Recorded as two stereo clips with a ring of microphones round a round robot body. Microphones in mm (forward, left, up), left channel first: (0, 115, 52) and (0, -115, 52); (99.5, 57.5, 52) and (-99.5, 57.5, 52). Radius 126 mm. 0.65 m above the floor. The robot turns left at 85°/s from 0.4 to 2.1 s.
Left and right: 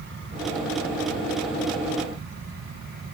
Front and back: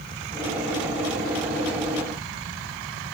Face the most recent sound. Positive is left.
No sound to turn to.